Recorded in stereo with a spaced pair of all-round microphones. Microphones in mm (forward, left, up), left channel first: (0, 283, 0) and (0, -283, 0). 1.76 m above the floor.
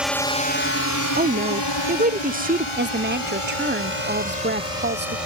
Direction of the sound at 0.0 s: Centre (ahead or behind).